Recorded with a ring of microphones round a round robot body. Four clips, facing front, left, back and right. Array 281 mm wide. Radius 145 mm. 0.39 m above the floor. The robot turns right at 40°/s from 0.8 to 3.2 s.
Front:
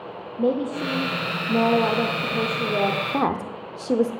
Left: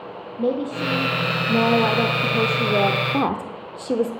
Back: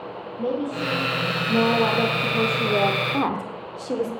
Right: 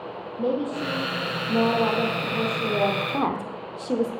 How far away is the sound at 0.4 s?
About 1.0 m.